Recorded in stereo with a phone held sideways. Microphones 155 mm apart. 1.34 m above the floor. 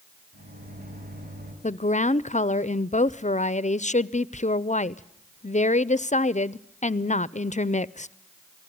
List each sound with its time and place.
0.3 s a microwave: 75° right (ahead or behind), 8 m
1.6 s a woman speaking: 55° left (ahead or behind), 0.5 m